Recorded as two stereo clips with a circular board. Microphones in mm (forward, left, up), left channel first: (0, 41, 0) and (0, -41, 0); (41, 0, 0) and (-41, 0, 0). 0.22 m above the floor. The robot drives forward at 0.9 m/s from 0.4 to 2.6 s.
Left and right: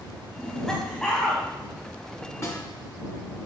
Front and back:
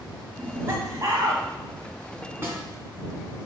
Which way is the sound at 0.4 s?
160° left.